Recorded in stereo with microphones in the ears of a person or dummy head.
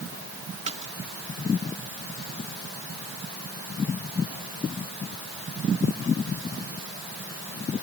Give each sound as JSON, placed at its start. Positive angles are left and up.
{"t": 0.7, "sound": "a splash", "side_deg": -35}